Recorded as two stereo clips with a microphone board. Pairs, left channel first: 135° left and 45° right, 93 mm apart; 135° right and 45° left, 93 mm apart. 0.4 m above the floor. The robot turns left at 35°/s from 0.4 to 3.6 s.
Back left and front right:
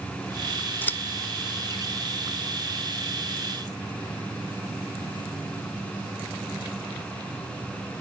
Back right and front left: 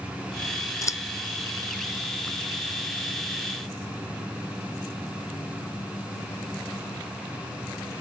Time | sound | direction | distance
0.8 | scissors | 165° right | 0.5 m